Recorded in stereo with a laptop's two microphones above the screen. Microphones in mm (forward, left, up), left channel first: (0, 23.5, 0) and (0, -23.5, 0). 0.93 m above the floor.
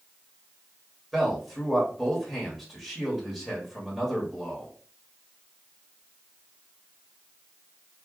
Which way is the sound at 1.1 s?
Centre (ahead or behind).